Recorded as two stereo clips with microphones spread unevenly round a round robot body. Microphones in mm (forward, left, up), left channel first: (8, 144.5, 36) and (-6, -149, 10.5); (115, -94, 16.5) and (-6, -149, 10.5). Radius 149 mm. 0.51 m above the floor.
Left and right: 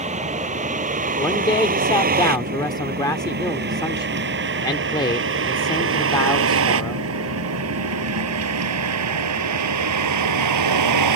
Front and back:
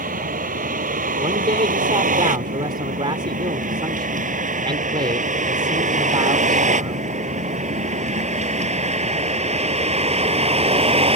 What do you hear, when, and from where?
0.0 s a vehicle: 160° right; by 11.2 s 115° right
1.2 s a man speaking: 165° left